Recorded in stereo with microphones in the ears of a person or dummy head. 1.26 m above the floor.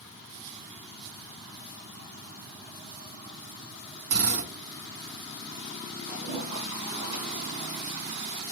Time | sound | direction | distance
4.1 | a drill | 75° right (ahead or behind) | 3 m
6.1 | a toilet flushing | 60° right (ahead or behind) | 2 m